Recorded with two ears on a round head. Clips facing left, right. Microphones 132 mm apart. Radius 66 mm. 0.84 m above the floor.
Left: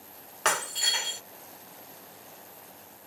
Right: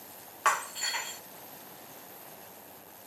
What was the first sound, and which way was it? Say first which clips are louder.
Breaking glass: even; 45° left (ahead or behind).